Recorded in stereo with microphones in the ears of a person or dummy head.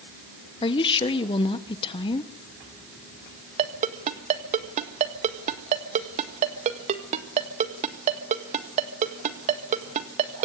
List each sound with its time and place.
0.6 s a woman speaking: 30° left (ahead or behind), 1.4 m
3.6 s a ringtone: 35° right (ahead or behind), 1.6 m